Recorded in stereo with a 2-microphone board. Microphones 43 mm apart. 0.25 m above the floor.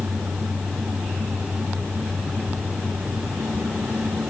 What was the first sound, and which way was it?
Only background noise.